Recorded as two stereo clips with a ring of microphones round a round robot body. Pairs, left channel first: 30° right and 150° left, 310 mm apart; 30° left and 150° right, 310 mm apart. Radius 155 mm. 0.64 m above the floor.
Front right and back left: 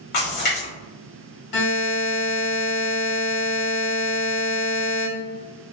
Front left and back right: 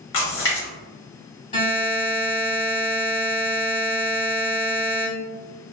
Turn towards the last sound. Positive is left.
turn(degrees=-40)